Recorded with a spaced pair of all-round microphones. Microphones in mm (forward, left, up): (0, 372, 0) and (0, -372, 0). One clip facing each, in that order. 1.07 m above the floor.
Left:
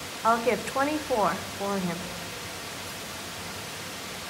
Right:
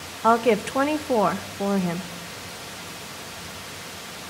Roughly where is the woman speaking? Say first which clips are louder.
Right 6 dB; right.